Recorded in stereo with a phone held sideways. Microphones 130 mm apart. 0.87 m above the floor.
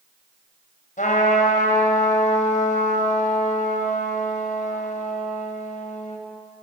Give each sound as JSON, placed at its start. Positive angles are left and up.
{"t": 1.0, "sound": "a trumpet", "side_deg": 85, "distance_m": 4.0}